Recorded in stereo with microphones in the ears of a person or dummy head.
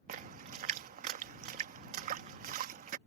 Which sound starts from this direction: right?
A splash, at 0.1 s.